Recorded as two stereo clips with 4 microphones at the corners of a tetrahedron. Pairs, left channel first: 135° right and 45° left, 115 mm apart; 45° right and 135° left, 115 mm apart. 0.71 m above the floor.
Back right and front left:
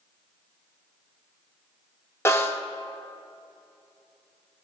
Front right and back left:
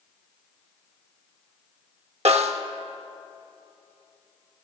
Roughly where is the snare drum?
Behind.